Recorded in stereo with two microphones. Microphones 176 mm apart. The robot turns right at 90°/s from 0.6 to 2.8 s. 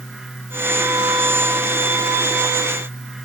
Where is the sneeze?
No sneeze in this recording.